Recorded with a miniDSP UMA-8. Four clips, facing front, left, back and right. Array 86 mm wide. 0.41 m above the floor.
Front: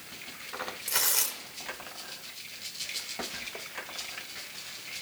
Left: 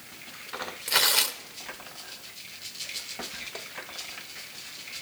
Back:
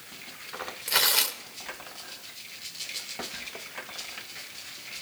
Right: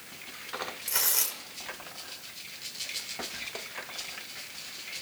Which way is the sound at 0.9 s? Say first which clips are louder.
Left 8 dB, back 10 dB; 130° left.